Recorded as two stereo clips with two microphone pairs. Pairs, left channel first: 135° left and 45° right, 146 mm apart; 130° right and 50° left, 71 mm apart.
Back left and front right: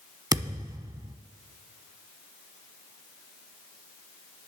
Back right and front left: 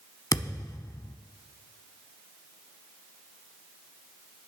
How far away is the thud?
About 0.8 m.